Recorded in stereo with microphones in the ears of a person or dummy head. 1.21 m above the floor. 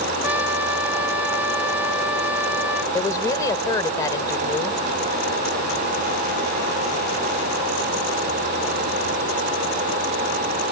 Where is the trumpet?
5° right (ahead or behind).